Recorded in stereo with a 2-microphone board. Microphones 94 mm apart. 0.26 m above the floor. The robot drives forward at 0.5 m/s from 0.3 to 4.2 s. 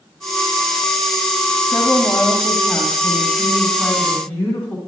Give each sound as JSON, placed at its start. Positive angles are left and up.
{"t": 1.7, "sound": "a woman speaking", "side_deg": 25, "distance_m": 1.6}